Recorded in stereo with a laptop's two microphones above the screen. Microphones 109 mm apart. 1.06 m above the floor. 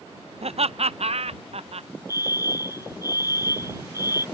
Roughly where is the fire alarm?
Left.